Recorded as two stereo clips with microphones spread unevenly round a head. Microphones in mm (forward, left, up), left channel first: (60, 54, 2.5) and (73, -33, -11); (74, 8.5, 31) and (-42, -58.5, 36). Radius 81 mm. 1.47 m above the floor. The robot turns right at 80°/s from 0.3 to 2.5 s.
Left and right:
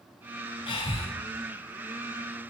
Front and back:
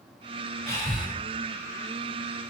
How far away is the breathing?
About 6.5 m.